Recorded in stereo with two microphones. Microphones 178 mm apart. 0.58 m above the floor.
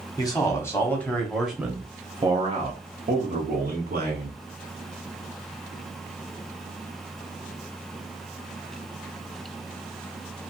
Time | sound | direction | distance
0.2 | a man speaking | 20° left (ahead or behind) | 1.3 m